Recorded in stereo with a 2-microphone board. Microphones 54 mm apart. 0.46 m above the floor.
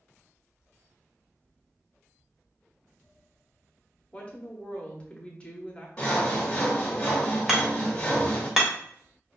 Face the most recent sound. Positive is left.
turn(degrees=-10)  # may be behind; listen again after turning